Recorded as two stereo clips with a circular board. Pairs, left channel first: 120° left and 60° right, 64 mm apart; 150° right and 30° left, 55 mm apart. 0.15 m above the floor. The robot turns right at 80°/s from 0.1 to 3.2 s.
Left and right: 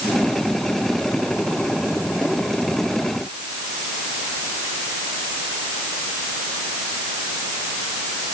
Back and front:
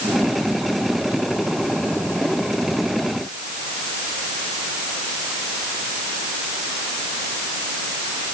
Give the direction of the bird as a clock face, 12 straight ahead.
No bird in this recording.